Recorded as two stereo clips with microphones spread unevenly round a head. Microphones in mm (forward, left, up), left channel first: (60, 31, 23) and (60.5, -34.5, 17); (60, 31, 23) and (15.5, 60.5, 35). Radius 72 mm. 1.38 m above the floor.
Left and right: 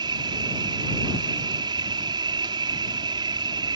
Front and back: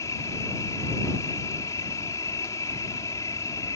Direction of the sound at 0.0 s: 90° right.